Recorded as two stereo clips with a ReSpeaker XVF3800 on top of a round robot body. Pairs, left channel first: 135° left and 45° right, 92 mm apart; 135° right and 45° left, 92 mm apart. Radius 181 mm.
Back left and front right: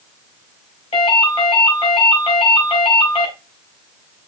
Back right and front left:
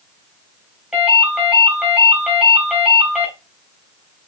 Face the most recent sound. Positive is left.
turn(degrees=125)